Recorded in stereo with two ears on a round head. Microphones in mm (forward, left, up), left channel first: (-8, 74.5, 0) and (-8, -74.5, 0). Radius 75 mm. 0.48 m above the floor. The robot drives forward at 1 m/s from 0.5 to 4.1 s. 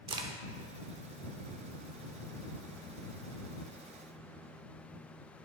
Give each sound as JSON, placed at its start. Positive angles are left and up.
{"t": 0.1, "sound": "a crack", "side_deg": -30, "distance_m": 1.0}